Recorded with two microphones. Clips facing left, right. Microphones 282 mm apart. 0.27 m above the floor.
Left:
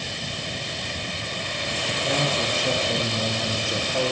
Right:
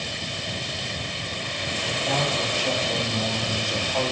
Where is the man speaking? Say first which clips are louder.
Left 1 dB; 20° left (ahead or behind), 7 m.